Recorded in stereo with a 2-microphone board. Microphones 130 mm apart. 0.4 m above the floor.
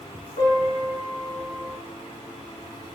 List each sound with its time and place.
0.4 s a piano: 80° left, 1.8 m